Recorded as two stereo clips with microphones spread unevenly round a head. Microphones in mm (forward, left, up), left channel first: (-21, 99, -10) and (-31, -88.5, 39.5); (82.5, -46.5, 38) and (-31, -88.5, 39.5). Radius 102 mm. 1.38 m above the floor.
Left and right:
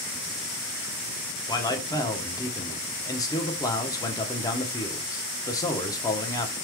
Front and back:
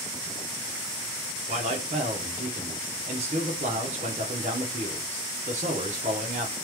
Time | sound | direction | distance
1.5 | a man speaking | 155° left | 1.0 m